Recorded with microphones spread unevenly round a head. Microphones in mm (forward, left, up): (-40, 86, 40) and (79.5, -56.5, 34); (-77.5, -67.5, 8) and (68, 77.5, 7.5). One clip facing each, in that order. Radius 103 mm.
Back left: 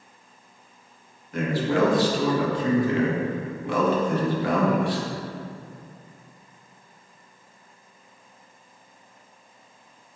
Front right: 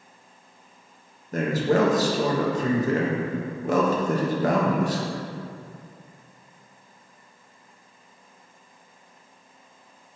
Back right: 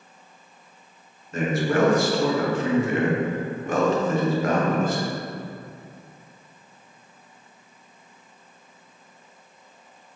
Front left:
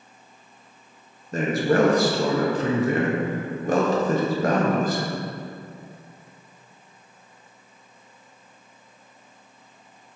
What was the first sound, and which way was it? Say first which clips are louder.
A man speaking: front right 2 dB, front left 2 dB; 5° right.